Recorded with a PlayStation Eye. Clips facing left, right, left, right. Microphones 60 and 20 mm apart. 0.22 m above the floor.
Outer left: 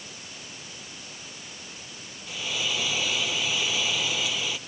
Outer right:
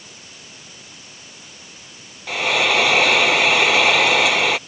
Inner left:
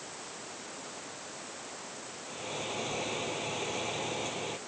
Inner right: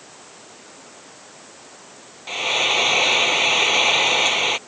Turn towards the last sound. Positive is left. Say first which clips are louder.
# outer right 13 dB, inner right 19 dB
turn(degrees=-65)  # may be behind; listen again after turning